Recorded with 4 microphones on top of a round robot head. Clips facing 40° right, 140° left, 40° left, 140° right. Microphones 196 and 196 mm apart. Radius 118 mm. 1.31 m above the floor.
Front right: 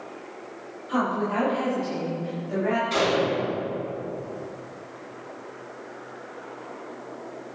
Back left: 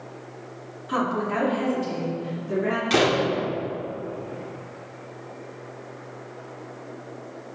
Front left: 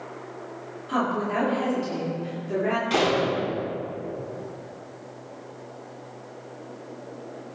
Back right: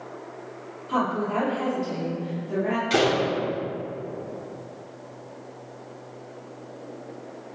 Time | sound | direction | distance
0.9 | a woman speaking | 120° left | 4.5 m
2.9 | a door slam | 145° left | 2.5 m